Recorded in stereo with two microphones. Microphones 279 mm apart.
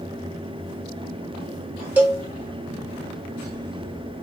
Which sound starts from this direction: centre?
A cowbell, at 2.0 s.